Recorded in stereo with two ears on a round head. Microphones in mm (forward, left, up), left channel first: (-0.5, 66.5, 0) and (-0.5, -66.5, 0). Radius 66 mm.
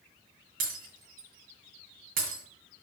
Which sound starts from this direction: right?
Breaking glass, at 0.6 s.